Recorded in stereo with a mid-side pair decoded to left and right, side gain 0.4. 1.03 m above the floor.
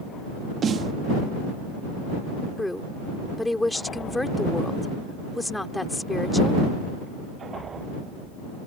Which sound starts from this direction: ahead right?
A snare drum, at 0.6 s.